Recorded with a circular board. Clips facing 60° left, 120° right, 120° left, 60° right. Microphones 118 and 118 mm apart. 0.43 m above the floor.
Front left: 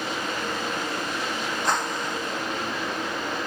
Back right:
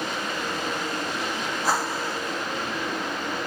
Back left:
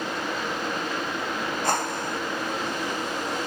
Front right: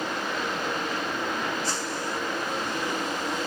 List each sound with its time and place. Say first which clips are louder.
1.6 s a whoosh: back right 1 dB, back left 4 dB; 155° left